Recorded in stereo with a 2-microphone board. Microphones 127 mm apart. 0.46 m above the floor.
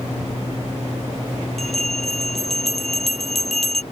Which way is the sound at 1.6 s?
5° left (ahead or behind).